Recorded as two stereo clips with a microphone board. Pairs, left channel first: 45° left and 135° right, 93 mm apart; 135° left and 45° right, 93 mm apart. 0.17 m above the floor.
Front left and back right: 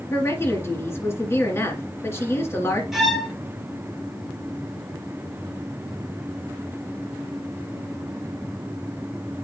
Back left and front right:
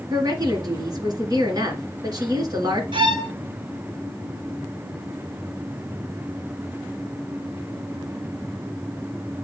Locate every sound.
0.1 s a woman speaking: 10° right, 2 m
2.9 s a violin: 50° right, 1.7 m